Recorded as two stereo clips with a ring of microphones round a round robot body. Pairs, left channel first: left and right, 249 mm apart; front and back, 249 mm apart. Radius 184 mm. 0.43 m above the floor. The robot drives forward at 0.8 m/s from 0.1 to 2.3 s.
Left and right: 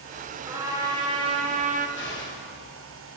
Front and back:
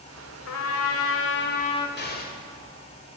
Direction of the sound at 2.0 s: 45° left.